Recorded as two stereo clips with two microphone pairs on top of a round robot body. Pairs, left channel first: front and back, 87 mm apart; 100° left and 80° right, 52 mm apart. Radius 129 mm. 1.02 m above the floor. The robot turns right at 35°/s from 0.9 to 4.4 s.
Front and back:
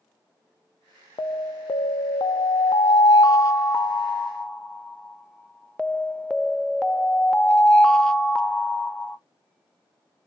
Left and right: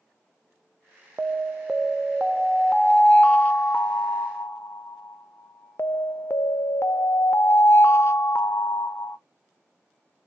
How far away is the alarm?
About 0.6 m.